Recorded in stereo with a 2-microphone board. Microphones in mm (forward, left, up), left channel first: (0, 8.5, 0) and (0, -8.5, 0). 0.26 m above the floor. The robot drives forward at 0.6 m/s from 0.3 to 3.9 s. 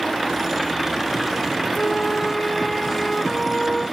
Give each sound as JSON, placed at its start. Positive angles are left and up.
{"t": 1.8, "sound": "a flute", "side_deg": 80, "distance_m": 0.6}